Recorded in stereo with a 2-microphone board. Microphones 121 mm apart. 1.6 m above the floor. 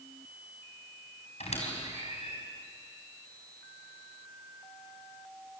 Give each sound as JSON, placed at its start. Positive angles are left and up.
{"t": 1.4, "sound": "a squeak", "side_deg": 70, "distance_m": 5.0}